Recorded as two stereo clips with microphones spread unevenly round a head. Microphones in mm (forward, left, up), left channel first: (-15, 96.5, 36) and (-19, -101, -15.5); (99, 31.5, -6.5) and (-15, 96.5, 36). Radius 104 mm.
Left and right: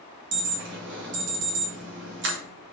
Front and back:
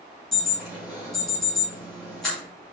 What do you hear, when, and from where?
0.3 s an alarm: 115° right, 2 m